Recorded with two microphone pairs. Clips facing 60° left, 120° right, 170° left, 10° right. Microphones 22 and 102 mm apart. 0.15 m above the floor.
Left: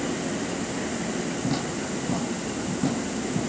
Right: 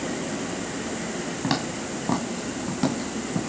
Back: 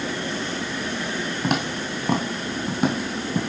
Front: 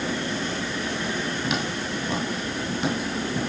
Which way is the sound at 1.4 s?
145° right.